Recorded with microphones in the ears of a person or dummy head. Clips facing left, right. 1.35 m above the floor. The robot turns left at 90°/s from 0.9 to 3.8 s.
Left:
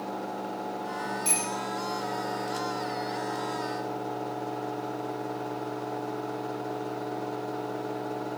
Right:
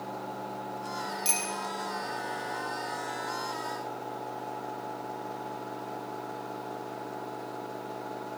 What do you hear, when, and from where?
1.2 s a bicycle bell: 10° right (ahead or behind), 4 m; by 1.5 s 30° right (ahead or behind), 4 m